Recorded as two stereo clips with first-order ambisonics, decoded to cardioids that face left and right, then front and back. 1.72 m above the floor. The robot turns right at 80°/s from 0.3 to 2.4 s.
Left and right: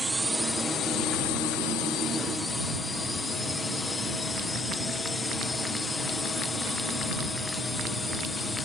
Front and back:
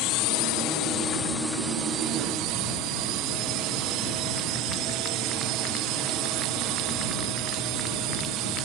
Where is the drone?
5° right; by 8.6 s 165° left.